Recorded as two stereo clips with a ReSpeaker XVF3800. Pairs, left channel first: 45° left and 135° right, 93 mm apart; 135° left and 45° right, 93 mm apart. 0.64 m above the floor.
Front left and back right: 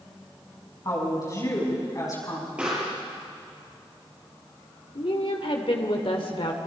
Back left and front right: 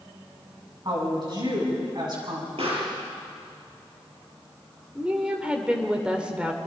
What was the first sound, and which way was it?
A woman speaking, 5° right.